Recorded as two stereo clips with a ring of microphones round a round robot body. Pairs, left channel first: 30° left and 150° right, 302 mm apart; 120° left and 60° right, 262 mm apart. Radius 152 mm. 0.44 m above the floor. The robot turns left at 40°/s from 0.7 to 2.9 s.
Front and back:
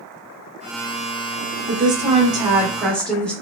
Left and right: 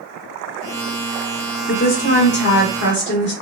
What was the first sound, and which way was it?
A woman speaking, 165° left.